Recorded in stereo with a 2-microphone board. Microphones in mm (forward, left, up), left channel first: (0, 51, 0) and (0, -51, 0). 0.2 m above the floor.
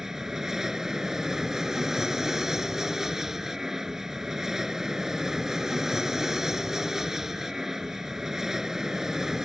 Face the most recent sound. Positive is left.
turn(degrees=-5)  # may be behind; listen again after turning